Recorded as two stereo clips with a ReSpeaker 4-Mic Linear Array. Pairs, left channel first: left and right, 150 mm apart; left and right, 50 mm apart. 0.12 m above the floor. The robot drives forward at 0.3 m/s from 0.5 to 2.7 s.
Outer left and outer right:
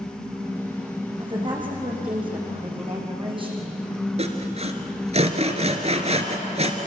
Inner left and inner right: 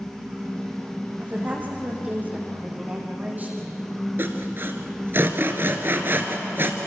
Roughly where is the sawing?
Right.